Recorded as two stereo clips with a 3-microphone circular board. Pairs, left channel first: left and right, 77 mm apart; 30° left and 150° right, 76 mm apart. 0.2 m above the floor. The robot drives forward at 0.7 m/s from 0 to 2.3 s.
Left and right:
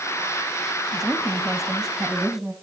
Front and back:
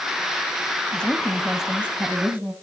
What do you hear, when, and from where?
0.9 s a woman speaking: 10° right, 1.1 m; by 2.5 s 175° right, 1.2 m